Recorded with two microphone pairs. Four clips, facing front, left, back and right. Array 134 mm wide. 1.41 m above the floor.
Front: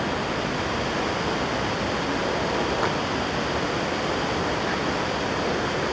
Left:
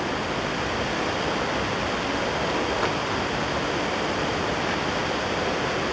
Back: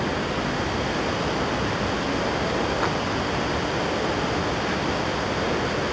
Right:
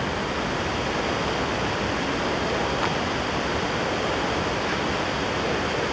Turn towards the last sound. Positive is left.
No sound to turn to.